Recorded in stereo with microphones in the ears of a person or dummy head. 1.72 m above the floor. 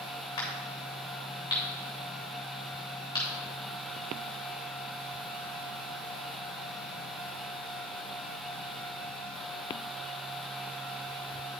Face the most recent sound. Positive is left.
turn(degrees=25)  # may be behind; listen again after turning